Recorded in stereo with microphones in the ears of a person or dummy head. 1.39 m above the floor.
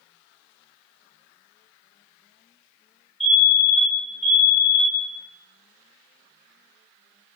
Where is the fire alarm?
5° left (ahead or behind), 0.9 m.